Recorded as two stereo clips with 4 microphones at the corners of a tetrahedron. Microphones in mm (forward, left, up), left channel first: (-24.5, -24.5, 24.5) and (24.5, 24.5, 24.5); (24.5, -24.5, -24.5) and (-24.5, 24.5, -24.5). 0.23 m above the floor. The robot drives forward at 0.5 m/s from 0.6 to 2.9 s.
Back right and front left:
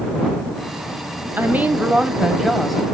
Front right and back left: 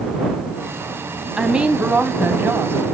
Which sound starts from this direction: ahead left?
A woman speaking, at 1.4 s.